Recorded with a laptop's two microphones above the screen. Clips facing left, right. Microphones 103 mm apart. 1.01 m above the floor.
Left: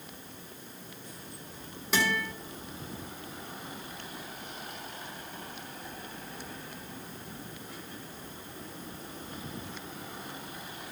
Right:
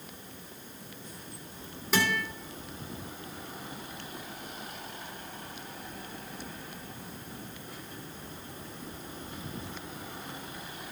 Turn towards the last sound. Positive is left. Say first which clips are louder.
# right 1 dB
turn(degrees=0)  # may be behind; listen again after turning